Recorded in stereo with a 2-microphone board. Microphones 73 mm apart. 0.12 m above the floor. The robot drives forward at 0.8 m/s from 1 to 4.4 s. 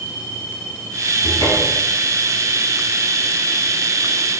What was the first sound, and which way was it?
A cupboard door, 55° left (ahead or behind).